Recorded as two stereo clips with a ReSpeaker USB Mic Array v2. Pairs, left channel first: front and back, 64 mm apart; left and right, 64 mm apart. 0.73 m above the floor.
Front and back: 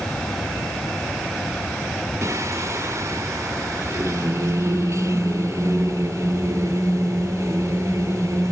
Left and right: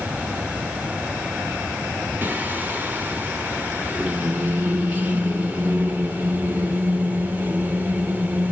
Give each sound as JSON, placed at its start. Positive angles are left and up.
{"t": 2.2, "sound": "singing", "azimuth_deg": -150, "distance_m": 1.2}